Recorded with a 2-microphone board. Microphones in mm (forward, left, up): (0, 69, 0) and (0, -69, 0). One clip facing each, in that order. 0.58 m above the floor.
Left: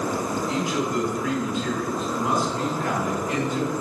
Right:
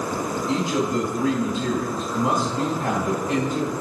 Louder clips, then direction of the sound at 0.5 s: Right 5 dB; 50° right (ahead or behind).